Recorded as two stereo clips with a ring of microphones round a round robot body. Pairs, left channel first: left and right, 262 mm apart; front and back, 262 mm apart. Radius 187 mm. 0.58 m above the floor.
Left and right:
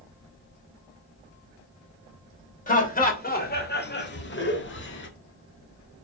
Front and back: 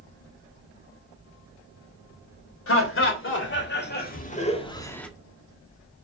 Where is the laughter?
35° left, 3 m; by 5.1 s 85° left, 1.5 m.